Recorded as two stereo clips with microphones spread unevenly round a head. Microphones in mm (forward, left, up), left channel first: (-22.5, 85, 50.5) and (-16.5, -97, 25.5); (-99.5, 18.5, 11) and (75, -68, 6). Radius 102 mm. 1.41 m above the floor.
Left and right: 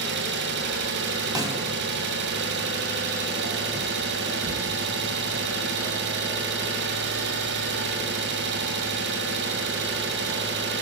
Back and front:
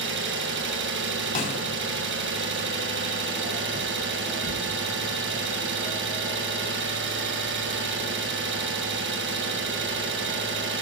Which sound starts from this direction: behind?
A snare drum, at 1.4 s.